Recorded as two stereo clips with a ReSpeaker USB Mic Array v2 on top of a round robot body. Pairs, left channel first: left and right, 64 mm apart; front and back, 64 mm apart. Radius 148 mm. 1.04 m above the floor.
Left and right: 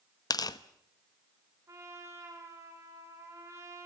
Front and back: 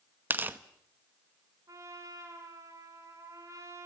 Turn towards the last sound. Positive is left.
turn(degrees=-140)